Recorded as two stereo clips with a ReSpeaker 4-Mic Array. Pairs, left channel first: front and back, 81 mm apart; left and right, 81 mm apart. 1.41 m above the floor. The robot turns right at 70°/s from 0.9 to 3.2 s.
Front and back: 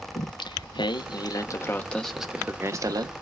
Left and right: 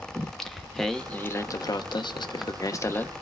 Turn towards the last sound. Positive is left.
turn(degrees=165)